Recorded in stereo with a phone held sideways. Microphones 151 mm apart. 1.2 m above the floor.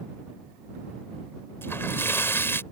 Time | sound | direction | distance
1.6 | a splash | 15° left (ahead or behind) | ?